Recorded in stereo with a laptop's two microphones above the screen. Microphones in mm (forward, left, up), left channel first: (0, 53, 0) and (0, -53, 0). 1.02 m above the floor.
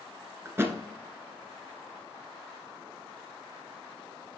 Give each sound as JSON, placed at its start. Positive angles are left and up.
{"t": 0.5, "sound": "a thud", "side_deg": -25, "distance_m": 1.0}